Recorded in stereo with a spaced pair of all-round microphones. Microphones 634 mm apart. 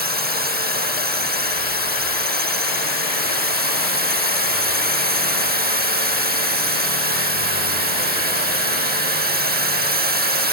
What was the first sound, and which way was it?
A drone, 15° right (ahead or behind).